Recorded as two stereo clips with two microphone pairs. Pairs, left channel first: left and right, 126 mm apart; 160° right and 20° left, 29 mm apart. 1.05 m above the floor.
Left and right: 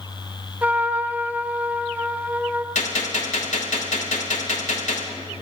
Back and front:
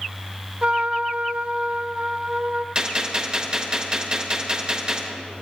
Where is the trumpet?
15° right, 0.7 m.